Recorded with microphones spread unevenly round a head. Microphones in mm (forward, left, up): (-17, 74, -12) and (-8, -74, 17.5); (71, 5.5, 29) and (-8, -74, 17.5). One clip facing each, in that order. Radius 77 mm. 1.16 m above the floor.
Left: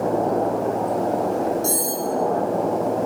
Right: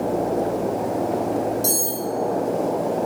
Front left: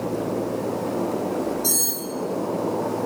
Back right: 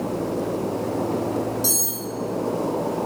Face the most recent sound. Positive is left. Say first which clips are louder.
# left 1 dB, even
turn(degrees=-135)